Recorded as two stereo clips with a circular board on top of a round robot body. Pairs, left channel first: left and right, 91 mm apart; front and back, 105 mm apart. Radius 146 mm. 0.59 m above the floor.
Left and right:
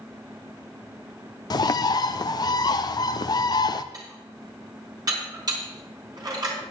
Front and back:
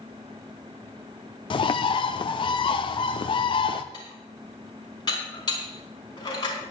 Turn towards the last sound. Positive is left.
turn(degrees=-45)